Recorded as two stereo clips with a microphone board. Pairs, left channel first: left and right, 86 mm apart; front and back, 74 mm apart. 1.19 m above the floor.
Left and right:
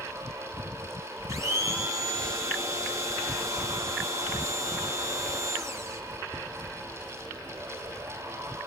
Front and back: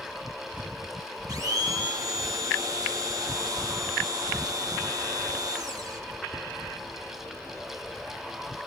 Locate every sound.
1.3 s a blender: 145° right, 2.5 m